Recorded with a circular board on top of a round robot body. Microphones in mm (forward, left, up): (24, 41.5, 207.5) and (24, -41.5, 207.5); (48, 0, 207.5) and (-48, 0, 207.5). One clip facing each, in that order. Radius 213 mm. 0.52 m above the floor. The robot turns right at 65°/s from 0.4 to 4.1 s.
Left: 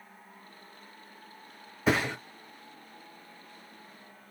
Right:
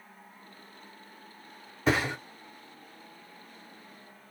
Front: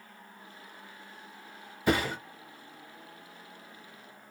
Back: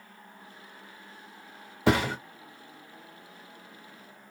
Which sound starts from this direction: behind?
A thud, at 1.9 s.